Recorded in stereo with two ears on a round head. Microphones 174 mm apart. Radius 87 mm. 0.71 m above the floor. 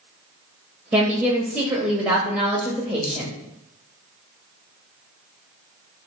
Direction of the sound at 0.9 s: 5° right (ahead or behind).